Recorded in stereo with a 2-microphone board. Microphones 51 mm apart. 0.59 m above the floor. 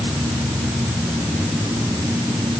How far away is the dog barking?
I don't hear a dog barking.